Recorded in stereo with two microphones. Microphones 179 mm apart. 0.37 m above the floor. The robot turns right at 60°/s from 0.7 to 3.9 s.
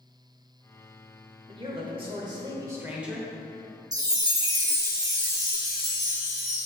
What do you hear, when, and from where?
1.5 s a man speaking: 30° right (ahead or behind), 1.0 m; by 3.3 s centre (ahead or behind), 1.0 m
3.9 s a chime: 20° right (ahead or behind), 0.8 m